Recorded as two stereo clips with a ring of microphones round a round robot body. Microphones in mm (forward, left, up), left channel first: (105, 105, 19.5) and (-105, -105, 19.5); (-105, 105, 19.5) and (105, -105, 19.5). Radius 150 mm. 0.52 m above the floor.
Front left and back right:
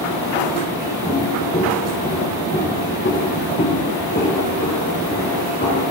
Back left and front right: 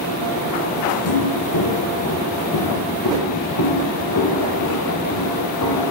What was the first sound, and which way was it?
Footsteps, 120° left.